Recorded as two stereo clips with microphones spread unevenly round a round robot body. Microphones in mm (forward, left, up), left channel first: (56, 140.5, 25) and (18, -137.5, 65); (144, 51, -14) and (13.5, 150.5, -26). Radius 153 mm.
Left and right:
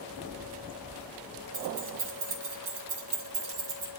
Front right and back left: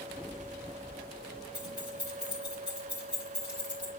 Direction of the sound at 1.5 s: 130° right.